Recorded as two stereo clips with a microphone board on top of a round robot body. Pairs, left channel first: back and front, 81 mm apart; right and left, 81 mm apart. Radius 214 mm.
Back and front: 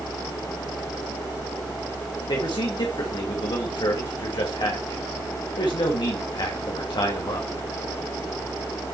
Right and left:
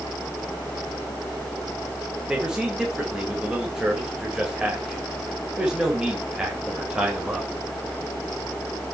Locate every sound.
2.3 s a man speaking: 170° left, 2.5 m